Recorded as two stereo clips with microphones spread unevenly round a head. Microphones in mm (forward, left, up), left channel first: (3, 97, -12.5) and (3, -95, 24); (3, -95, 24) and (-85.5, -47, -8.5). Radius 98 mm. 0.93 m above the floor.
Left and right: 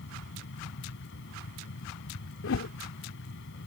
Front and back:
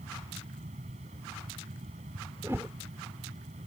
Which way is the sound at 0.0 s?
115° left.